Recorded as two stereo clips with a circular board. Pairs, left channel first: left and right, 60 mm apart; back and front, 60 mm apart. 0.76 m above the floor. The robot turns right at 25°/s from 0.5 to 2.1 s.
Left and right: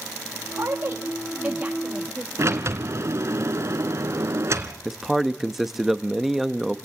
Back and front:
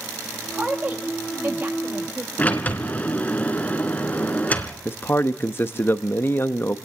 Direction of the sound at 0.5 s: 65° right.